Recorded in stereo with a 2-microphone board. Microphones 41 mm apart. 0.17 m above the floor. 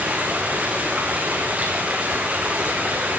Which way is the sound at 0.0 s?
35° right (ahead or behind).